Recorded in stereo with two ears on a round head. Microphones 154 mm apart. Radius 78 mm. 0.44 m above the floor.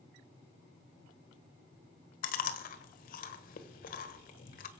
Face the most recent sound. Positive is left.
turn(degrees=55)  # may be behind; listen again after turning